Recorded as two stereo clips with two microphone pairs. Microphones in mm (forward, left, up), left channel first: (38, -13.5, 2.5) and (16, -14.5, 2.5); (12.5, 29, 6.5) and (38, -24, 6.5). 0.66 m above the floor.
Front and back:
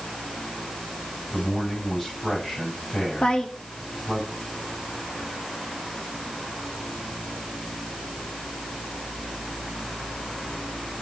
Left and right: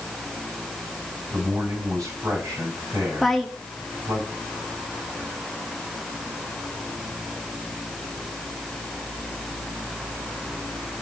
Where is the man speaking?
55° right, 5 m.